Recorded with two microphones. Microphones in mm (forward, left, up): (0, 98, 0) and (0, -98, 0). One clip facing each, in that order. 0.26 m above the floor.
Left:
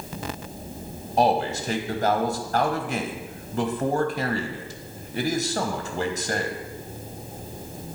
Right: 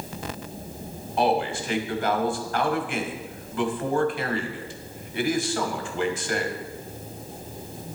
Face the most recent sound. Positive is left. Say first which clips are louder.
# left 2 dB
turn(degrees=35)  # may be behind; listen again after turning